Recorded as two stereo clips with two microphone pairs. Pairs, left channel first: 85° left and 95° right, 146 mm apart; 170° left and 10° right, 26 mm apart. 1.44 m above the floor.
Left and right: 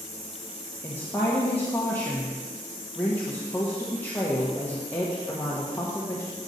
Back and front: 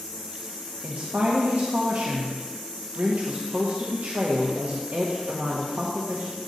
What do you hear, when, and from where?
0.8 s a woman speaking: 5° left, 1.1 m